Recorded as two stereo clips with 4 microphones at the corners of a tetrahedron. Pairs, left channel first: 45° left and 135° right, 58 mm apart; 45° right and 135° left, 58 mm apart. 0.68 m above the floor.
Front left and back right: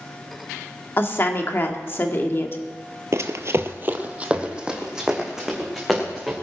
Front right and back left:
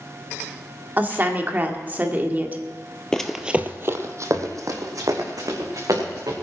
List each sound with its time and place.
1.0 s a woman speaking: 85° left, 1.7 m
3.1 s running footsteps: 120° right, 1.1 m; by 6.3 s 140° left, 5 m